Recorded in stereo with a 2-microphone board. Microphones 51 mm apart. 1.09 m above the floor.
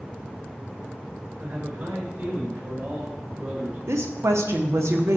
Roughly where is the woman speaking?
Right.